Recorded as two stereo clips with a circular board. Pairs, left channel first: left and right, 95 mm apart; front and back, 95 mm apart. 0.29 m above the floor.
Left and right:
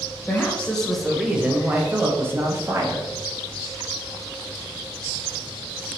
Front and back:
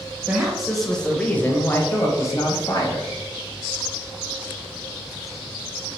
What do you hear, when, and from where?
0.3 s a woman speaking: 120° left, 0.9 m; by 3.1 s 40° right, 1.4 m